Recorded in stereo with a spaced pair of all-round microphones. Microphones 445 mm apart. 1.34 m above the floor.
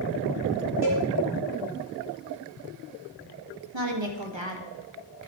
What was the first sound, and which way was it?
A cowbell, 75° right (ahead or behind).